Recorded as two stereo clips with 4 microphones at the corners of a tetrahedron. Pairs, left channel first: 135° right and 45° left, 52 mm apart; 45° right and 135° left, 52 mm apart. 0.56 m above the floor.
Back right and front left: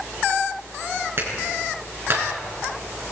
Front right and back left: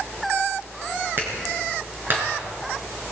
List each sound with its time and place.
1.2 s a clap: 90° left, 5.5 m